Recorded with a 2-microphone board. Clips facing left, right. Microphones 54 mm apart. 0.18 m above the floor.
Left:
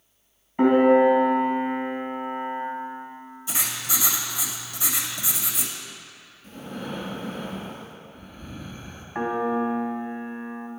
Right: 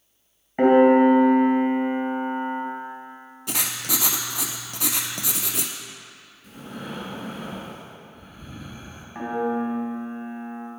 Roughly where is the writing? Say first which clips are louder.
Right 1 dB; right.